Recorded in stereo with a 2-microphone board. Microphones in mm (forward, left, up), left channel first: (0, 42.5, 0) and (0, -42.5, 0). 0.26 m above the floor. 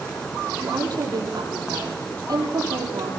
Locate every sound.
0.6 s a woman speaking: 50° right (ahead or behind), 8 m